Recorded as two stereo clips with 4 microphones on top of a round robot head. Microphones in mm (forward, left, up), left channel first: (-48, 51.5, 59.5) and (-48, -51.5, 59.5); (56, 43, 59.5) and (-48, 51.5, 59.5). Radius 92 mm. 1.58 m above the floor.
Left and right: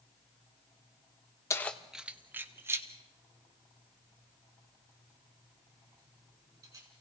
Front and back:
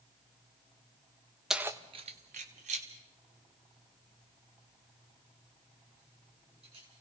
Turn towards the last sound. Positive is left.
turn(degrees=-145)